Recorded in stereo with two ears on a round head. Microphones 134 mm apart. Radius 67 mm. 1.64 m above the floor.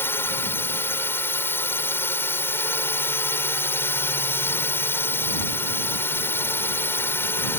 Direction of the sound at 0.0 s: 15° left (ahead or behind).